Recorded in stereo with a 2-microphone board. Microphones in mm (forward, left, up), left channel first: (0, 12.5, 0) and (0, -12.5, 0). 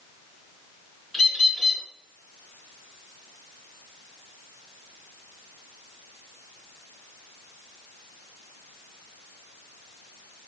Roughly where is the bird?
Centre.